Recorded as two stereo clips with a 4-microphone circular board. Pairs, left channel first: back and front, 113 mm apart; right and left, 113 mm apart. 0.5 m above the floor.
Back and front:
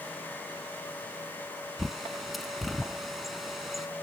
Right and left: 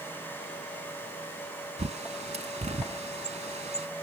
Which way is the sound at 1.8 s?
90° left.